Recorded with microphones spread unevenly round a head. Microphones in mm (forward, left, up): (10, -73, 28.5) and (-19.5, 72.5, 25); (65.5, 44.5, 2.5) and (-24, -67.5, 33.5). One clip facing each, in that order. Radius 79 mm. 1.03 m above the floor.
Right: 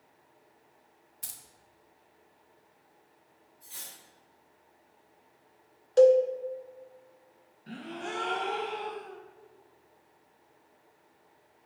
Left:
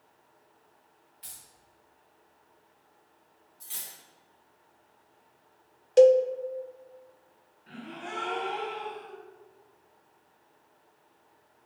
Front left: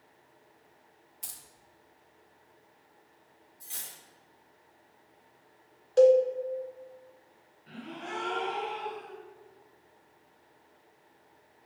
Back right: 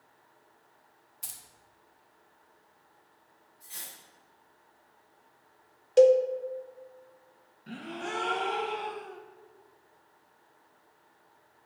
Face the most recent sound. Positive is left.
turn(degrees=-105)